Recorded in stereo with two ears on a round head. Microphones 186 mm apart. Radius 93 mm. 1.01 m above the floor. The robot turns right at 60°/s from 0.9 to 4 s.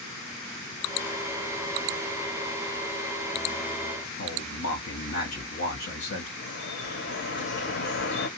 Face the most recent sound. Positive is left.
turn(degrees=65)  # may be behind; listen again after turning